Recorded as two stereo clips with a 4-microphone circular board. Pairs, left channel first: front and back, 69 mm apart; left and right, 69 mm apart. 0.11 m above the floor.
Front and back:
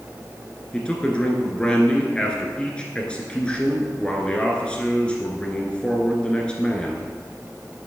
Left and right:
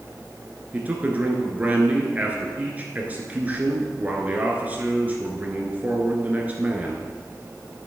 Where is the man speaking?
55° right, 1.6 m.